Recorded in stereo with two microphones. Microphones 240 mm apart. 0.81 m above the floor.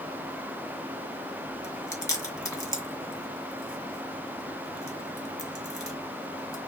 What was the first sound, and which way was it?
Chewing, 15° left (ahead or behind).